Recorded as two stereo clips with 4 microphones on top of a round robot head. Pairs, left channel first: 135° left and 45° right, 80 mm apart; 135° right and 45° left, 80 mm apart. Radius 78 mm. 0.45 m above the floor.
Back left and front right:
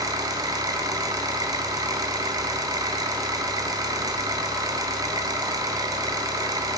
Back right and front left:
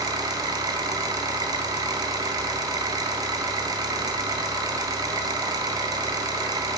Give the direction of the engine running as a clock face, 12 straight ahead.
12 o'clock.